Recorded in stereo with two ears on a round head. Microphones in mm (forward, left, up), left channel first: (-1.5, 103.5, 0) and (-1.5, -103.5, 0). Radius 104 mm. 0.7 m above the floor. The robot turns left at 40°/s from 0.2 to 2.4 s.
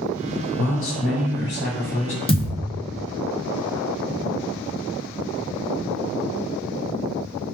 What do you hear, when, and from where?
0.6 s a man speaking: 95° left, 2.5 m; by 2.2 s 35° left, 2.5 m
2.3 s a thud: 25° left (ahead or behind), 0.8 m; by 2.5 s 30° left (ahead or behind), 0.8 m